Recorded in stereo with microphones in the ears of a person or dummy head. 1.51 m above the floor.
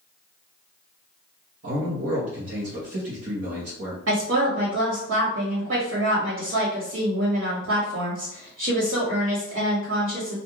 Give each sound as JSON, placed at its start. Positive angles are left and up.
{"t": 1.6, "sound": "a man speaking", "side_deg": -65, "distance_m": 1.0}
{"t": 4.1, "sound": "a woman speaking", "side_deg": -65, "distance_m": 1.4}